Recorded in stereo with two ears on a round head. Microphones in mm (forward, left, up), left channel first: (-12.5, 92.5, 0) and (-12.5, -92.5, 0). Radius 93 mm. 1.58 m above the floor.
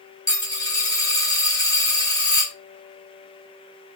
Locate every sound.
0.3 s a dropped coin: 20° left (ahead or behind), 1.3 m